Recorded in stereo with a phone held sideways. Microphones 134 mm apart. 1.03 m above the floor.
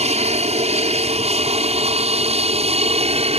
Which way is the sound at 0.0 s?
50° right (ahead or behind).